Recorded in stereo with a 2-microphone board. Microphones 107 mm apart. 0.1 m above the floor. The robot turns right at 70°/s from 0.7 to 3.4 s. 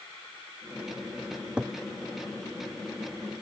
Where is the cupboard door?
25° right (ahead or behind); by 1.8 s 5° left (ahead or behind).